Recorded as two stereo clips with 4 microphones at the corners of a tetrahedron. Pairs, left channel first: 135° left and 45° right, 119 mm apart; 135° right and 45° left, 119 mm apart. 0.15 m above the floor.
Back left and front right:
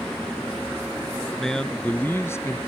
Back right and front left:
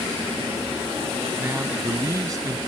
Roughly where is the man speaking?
Ahead left.